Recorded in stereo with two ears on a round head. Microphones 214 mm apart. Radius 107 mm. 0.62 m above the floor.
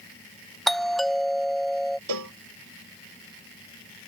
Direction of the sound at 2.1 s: 85° right.